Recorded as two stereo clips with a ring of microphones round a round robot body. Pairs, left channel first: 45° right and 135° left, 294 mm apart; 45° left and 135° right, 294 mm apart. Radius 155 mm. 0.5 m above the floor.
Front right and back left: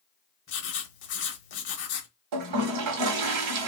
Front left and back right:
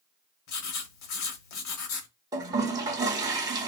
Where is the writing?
10° left, 0.7 m.